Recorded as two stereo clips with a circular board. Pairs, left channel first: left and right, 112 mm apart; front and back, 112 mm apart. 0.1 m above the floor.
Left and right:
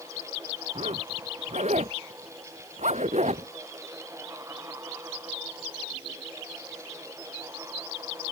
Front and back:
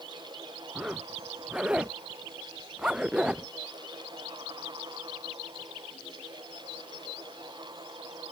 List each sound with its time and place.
0.8 s a zipper: 95° right